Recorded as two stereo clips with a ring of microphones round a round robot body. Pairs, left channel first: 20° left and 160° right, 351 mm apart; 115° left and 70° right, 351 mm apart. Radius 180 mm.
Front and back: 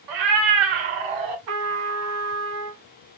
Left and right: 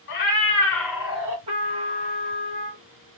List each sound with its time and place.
0.1 s a cat meowing: 170° left, 1.4 m; by 1.4 s 140° right, 1.7 m
1.5 s a trumpet: 140° right, 1.2 m